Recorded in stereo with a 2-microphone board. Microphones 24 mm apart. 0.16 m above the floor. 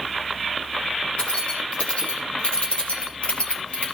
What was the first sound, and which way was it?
Keys jangling, 45° left (ahead or behind).